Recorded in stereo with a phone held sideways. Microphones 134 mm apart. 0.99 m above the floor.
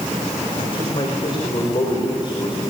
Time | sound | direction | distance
0.6 | a man speaking | 40° left (ahead or behind) | 4.5 m